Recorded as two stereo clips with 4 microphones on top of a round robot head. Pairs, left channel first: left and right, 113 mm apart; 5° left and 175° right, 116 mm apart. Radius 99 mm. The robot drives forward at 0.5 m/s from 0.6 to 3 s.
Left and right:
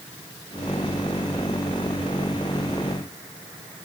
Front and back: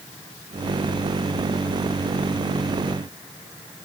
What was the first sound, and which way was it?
Only background noise.